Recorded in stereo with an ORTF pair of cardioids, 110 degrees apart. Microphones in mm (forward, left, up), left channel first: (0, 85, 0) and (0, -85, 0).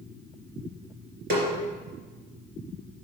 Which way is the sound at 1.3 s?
70° right.